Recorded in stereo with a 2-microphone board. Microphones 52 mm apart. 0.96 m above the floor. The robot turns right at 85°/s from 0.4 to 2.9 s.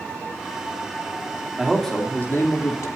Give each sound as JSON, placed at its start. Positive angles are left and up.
{"t": 1.6, "sound": "a man speaking", "azimuth_deg": -15, "distance_m": 3.0}